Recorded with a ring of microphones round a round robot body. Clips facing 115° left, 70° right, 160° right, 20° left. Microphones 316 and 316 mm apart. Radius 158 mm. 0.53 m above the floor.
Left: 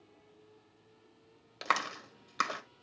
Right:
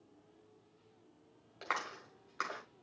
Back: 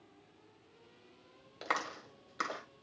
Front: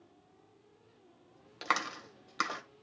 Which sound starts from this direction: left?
A clap, at 1.6 s.